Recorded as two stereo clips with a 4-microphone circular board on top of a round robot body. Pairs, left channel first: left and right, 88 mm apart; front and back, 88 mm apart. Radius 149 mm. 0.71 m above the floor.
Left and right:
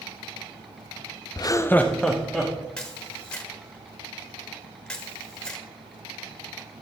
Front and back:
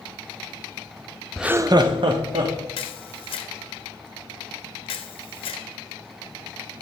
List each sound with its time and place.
1.4 s laughter: 90° left, 0.5 m; by 2.5 s 175° right, 1.3 m
2.8 s a camera shutter: 10° left, 0.9 m